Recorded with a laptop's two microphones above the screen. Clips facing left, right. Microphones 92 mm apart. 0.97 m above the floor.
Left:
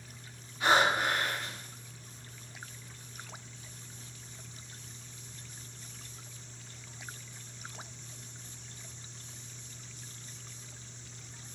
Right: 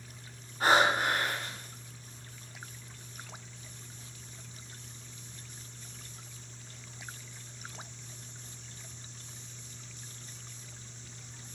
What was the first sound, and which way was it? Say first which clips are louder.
Breathing: right 1 dB; 40° right (ahead or behind).